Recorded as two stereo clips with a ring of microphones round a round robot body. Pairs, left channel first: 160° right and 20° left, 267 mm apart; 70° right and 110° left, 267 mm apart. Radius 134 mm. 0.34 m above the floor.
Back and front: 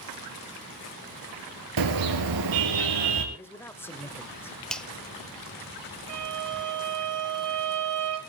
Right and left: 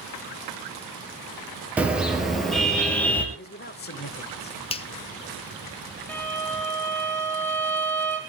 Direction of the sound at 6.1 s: 15° left.